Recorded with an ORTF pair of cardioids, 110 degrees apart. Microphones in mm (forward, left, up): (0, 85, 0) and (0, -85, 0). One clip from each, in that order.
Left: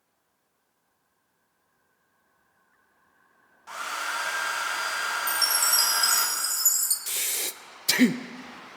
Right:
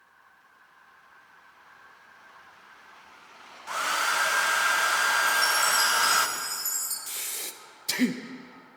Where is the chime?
50° left, 1.4 m.